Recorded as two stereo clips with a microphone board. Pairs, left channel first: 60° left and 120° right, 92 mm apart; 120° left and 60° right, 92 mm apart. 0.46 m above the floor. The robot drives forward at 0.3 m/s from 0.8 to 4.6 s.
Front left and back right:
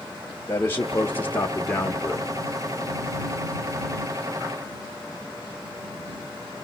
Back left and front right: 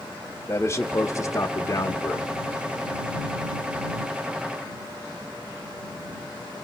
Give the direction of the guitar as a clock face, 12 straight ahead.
I don't hear a guitar.